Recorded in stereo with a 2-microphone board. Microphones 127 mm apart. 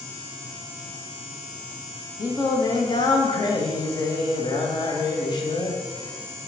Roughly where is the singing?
Left.